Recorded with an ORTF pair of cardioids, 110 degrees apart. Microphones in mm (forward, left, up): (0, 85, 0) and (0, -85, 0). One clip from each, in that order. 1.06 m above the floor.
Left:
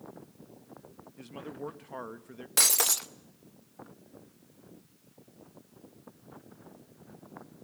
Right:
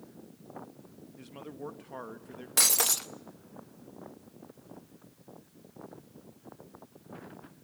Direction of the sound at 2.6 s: 5° left.